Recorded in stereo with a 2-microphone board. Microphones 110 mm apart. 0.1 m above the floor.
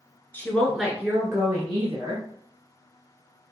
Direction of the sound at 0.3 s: 15° left (ahead or behind).